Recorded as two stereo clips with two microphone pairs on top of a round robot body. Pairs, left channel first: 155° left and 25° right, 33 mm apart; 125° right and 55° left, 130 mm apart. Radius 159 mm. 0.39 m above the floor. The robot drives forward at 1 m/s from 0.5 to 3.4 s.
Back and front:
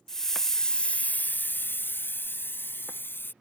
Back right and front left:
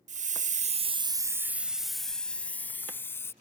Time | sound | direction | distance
0.1 | a hiss | 75° left | ?